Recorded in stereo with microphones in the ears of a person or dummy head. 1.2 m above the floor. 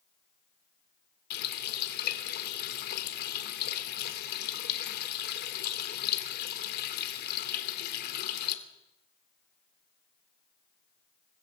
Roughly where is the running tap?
Left.